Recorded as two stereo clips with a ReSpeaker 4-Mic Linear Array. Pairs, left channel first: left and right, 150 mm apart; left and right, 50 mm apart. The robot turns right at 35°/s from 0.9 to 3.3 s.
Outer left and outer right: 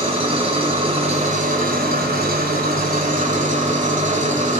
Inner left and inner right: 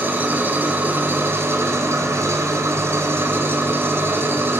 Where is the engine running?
140° right, 1.7 m; by 4.6 s 55° right, 1.7 m.